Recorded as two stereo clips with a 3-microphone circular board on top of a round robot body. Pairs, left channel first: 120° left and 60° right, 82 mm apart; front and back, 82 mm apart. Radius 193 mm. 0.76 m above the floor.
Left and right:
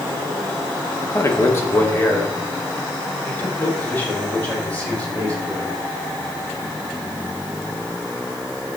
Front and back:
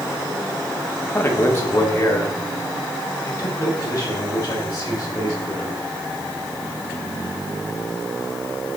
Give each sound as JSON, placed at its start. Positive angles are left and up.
{"t": 1.0, "sound": "a man speaking", "azimuth_deg": 65, "distance_m": 1.5}